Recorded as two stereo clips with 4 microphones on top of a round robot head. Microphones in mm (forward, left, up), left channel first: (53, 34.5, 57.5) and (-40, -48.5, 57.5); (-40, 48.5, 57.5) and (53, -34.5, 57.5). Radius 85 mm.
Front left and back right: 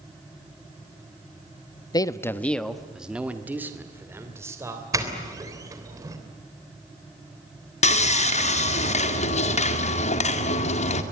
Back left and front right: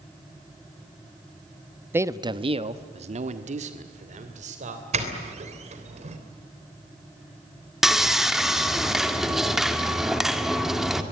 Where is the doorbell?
75° right, 3.5 m.